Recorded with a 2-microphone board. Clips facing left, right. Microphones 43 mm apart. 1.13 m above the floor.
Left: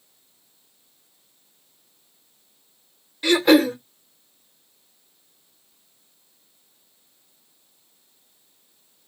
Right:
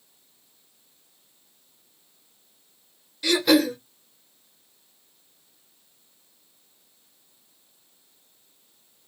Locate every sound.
3.2 s throat clearing: 35° left (ahead or behind), 0.6 m